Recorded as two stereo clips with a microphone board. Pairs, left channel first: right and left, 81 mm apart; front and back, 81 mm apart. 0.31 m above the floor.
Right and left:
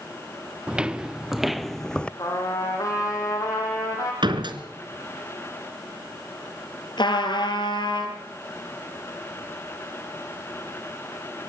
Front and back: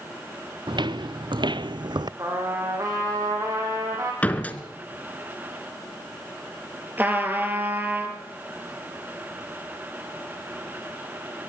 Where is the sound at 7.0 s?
115° right, 4 m.